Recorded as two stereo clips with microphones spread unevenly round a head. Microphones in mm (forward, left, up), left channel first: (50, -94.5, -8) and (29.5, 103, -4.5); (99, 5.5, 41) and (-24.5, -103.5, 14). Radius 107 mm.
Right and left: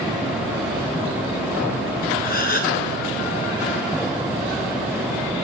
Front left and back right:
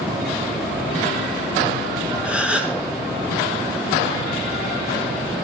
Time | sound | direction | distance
2.2 | a gasp | 50° right | 1.4 m